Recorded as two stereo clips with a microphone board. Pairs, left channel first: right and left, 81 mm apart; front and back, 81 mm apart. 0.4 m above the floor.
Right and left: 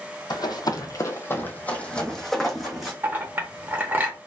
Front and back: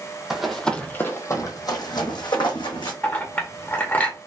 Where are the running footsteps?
100° right, 0.7 m; by 2.9 s 5° left, 1.2 m.